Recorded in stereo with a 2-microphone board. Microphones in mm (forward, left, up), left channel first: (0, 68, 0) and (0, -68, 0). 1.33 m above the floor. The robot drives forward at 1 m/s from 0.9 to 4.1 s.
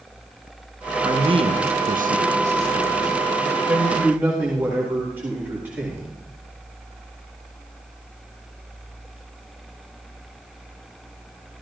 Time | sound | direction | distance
1.0 | a man speaking | 30° right (ahead or behind) | 1.2 m